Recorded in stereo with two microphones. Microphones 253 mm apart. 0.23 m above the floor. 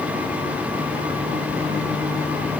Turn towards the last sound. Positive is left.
No sound to turn to.